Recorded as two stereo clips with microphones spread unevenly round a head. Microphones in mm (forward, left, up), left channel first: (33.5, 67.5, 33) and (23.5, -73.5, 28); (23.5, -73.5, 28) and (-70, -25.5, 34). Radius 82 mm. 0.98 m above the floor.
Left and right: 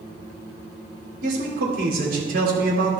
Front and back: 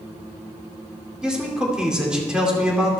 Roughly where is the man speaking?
Behind right.